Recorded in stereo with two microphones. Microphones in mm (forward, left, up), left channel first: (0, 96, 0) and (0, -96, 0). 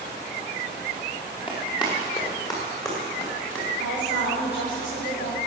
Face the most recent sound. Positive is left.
turn(degrees=80)